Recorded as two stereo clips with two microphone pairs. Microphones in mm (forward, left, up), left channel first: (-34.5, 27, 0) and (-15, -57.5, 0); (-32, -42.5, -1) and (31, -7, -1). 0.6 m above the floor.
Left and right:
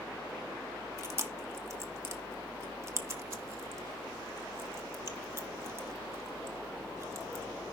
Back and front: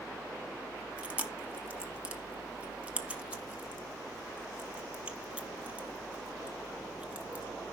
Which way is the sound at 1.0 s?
40° right.